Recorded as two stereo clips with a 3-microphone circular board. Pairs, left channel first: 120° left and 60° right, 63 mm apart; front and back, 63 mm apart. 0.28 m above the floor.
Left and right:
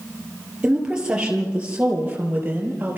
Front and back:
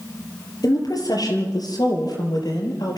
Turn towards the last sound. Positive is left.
turn(degrees=5)